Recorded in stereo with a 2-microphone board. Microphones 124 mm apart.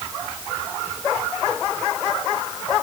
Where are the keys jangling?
I don't hear keys jangling.